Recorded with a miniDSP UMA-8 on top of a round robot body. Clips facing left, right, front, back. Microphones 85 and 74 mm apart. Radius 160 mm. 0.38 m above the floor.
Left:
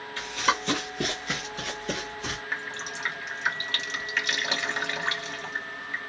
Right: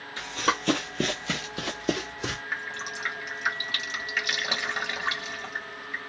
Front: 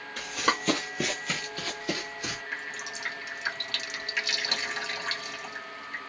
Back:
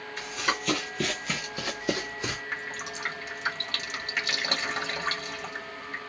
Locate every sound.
0.2 s running footsteps: 15° right, 0.6 m; by 2.4 s 120° right, 1.1 m
2.5 s dripping: 170° right, 1.6 m